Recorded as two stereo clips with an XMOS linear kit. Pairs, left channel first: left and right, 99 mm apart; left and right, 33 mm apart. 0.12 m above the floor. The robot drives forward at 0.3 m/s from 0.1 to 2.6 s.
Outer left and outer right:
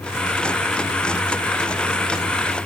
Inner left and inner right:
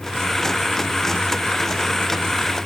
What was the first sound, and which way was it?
Only background noise.